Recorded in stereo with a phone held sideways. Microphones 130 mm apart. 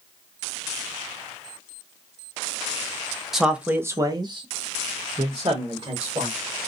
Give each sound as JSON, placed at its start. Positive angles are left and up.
{"t": 3.3, "sound": "a man speaking", "side_deg": 0, "distance_m": 0.8}